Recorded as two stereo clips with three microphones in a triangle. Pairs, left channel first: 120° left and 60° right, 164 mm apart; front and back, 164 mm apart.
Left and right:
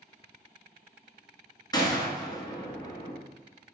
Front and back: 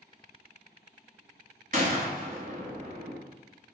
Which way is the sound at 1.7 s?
Straight behind.